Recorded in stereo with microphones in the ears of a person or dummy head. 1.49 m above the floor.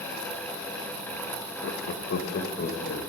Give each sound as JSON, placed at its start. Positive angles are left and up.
{"t": 1.6, "sound": "laughter", "side_deg": 70, "distance_m": 0.7}